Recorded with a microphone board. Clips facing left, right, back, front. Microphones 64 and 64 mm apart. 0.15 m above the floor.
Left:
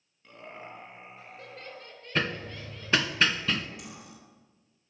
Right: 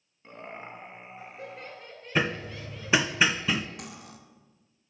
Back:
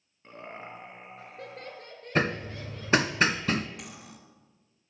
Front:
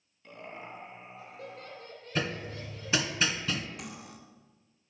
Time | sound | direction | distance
0.2 | laughter | 135° right | 2.5 m
2.1 | hammering | 165° right | 0.6 m
3.8 | cutlery clinking | 90° right | 1.4 m